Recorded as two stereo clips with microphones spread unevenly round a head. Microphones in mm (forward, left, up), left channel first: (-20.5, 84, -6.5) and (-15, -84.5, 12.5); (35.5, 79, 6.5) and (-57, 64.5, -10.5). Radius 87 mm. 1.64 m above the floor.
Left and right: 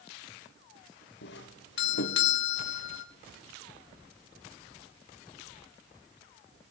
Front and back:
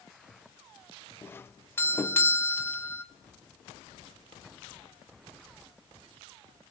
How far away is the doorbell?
About 1.8 m.